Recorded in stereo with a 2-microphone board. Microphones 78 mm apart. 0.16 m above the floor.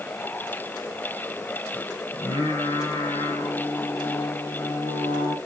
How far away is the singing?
About 4.5 m.